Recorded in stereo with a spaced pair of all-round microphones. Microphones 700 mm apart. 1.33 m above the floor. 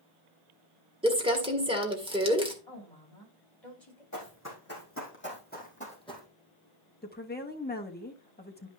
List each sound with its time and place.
1.0 s crumpling: 5° right (ahead or behind), 1.8 m
2.7 s a woman speaking: 55° left (ahead or behind), 8 m
4.1 s running footsteps: 25° left (ahead or behind), 4 m; by 6.3 s 5° left (ahead or behind), 3 m
7.0 s a woman speaking: 15° left (ahead or behind), 1.6 m